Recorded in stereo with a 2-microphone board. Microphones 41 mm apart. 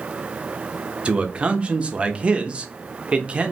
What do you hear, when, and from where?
1.1 s a man speaking: 25° right (ahead or behind), 0.7 m